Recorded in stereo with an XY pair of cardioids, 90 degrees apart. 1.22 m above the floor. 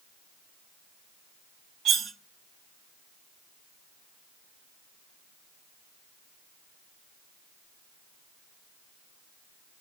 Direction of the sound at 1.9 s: 65° right.